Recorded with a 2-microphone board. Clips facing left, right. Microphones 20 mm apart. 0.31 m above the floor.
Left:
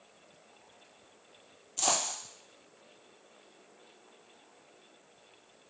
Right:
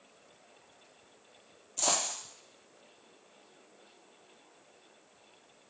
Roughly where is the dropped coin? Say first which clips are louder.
Left 1 dB; left.